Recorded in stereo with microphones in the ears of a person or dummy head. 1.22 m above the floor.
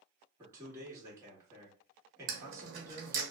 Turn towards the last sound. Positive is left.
turn(degrees=-55)  # may be behind; listen again after turning